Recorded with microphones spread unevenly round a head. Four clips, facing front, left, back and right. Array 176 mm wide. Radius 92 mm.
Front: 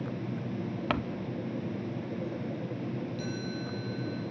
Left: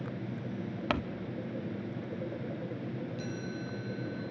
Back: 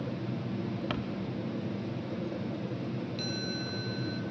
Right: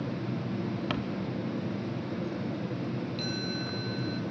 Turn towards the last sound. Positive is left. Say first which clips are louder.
# right 4 dB, even
turn(degrees=-165)